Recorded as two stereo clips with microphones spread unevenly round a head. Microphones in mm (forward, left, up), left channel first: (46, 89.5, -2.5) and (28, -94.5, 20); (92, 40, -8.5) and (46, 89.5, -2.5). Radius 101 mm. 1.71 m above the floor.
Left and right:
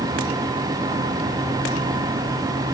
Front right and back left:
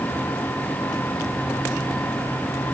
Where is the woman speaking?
I don't hear a woman speaking.